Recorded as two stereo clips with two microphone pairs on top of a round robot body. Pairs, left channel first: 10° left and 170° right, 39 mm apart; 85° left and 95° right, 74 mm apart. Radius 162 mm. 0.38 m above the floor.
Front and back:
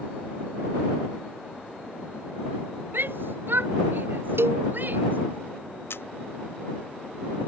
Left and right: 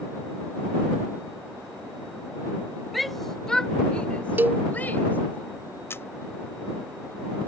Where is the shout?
Straight behind; by 5.4 s 150° left.